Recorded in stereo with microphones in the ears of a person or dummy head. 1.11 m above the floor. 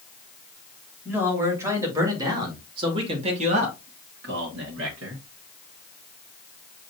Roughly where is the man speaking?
Centre.